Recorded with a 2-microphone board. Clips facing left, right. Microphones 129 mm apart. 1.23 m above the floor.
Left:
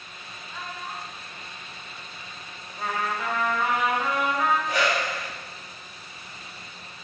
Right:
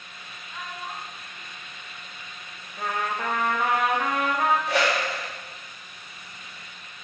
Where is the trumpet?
65° right (ahead or behind), 1.4 m.